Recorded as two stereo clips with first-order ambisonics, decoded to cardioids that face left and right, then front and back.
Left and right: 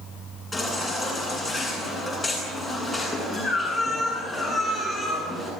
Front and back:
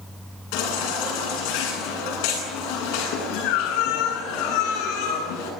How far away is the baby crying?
About 9 m.